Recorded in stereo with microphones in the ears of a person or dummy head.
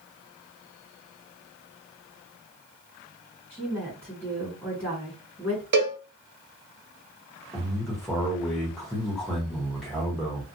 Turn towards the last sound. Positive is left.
turn(degrees=0)  # may be behind; listen again after turning